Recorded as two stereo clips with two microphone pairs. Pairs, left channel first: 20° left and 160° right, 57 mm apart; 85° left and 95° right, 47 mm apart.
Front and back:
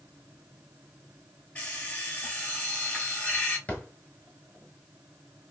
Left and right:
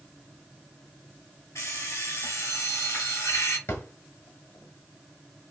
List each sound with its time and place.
1.6 s an alarm clock: 80° left, 3 m
3.7 s a drawer: 75° left, 1.3 m